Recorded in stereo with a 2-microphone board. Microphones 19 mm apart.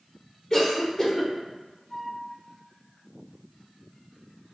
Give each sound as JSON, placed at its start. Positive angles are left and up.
{"t": 0.5, "sound": "a cough", "side_deg": 30, "distance_m": 2.0}
{"t": 1.9, "sound": "a flute", "side_deg": 30, "distance_m": 1.0}